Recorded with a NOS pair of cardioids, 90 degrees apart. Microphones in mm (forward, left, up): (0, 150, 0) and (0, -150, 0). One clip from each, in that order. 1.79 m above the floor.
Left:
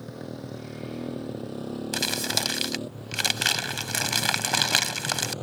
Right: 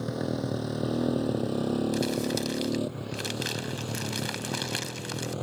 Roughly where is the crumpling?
Ahead left.